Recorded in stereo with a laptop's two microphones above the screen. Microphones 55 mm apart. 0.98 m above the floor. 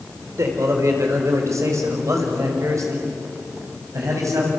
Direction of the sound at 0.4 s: 65° right (ahead or behind).